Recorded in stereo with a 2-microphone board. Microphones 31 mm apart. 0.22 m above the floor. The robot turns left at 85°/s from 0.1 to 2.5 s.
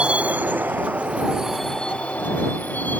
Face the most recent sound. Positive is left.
turn(degrees=85)